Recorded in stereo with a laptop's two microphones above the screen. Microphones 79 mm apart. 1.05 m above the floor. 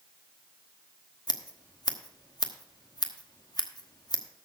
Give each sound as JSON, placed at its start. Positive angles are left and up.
{"t": 1.3, "sound": "scissors", "side_deg": 60, "distance_m": 1.0}